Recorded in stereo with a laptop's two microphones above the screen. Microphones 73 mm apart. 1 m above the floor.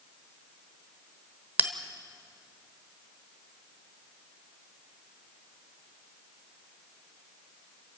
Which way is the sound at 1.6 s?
25° right (ahead or behind).